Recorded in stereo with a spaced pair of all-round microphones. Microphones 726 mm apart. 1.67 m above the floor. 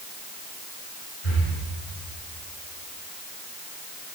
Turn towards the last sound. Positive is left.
turn(degrees=50)  # may be behind; listen again after turning